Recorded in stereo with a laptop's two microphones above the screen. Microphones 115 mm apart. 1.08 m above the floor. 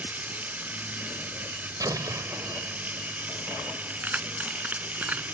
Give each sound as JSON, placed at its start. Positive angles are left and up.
{"t": 0.0, "sound": "running water", "side_deg": -15}
{"t": 1.8, "sound": "an explosion", "side_deg": -30}
{"t": 4.0, "sound": "keys jangling", "side_deg": -15}